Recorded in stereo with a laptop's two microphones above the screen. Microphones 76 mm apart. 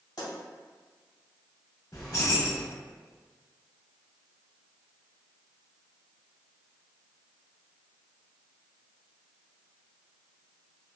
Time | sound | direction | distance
0.2 | a pop | 75° left (ahead or behind) | 1.9 m
1.9 | keys jangling | 55° left (ahead or behind) | 1.6 m